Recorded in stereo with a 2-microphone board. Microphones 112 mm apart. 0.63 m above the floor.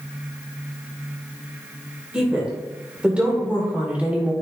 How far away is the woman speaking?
About 2.5 m.